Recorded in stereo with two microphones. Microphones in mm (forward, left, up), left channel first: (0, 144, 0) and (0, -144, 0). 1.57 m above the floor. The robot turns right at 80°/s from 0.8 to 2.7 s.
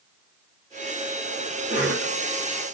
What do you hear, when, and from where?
1.7 s a cough: 155° right, 2.5 m; by 2.1 s 120° right, 2.5 m